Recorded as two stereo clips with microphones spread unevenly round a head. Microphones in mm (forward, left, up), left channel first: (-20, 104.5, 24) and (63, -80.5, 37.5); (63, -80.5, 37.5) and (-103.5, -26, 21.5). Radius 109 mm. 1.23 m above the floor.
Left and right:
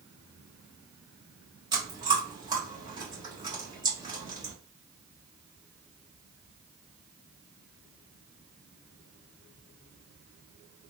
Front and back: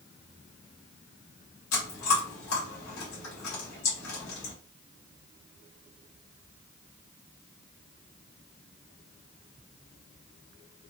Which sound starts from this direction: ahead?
Chewing, at 1.7 s.